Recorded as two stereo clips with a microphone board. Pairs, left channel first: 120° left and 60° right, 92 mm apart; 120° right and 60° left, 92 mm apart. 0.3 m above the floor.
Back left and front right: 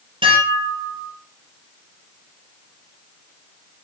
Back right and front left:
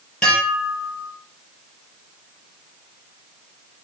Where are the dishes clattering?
40° right, 4 m.